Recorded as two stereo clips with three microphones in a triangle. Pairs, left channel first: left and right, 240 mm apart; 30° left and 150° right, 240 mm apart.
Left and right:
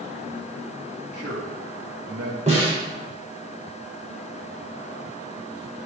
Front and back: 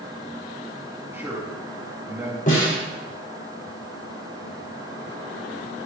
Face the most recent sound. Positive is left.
turn(degrees=-30)